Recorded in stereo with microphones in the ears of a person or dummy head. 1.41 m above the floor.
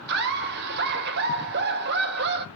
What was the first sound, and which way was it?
Laughter, 55° right (ahead or behind).